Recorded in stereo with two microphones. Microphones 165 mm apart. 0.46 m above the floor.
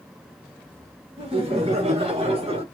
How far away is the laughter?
About 1.6 m.